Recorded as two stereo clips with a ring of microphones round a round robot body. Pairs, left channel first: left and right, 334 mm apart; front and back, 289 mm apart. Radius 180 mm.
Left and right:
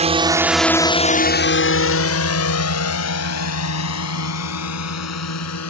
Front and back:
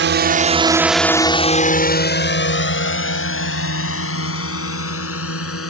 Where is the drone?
155° right; by 5.7 s 45° left.